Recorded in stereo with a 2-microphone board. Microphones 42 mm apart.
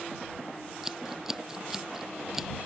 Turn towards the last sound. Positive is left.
turn(degrees=-10)  # may be behind; listen again after turning